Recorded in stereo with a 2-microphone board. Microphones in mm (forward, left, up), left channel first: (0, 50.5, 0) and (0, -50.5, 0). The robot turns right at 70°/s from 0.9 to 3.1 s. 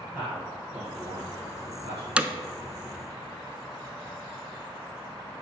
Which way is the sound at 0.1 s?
10° right (ahead or behind).